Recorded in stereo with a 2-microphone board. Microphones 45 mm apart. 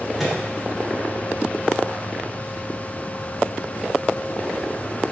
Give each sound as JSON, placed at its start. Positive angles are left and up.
{"t": 0.2, "sound": "a microwave", "side_deg": 0, "distance_m": 1.2}